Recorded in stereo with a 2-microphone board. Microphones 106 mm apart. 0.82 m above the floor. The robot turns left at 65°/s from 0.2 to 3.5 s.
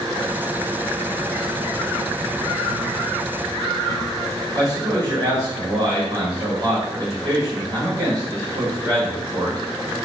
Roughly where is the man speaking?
Right.